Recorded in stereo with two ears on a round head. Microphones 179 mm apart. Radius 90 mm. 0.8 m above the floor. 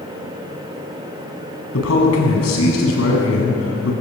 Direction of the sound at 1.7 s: 80° left.